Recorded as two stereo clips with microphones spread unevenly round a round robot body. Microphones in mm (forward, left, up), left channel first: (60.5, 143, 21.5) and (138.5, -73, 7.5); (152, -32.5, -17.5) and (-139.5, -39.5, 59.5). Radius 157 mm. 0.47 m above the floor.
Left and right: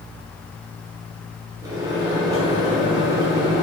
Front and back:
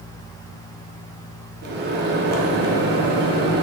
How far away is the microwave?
About 0.6 m.